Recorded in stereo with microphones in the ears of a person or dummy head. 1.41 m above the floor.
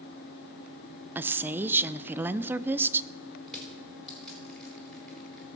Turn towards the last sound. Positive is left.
turn(degrees=5)  # may be behind; listen again after turning